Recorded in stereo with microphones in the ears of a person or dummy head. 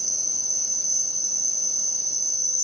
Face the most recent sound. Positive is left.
turn(degrees=-70)  # may be behind; listen again after turning